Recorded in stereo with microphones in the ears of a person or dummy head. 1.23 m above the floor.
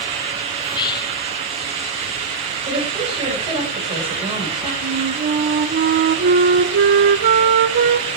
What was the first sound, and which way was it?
Whispering, 25° left (ahead or behind).